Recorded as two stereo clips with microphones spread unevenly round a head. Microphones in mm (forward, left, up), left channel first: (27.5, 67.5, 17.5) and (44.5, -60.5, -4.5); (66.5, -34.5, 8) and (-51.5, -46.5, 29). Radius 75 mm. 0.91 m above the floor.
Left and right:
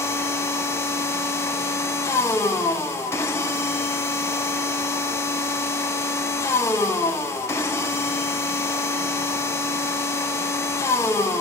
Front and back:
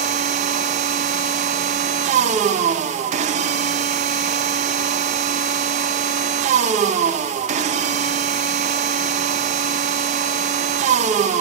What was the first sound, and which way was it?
A machine running, 175° left.